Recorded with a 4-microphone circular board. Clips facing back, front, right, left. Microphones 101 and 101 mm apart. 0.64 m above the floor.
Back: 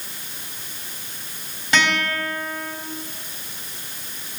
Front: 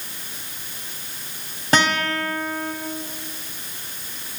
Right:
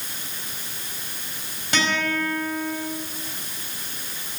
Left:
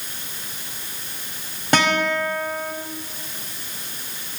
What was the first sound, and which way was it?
A guitar, 50° left.